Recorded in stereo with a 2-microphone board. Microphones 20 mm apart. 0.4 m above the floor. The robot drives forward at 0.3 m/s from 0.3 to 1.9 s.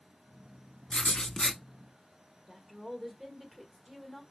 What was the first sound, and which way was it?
Writing, 50° left (ahead or behind).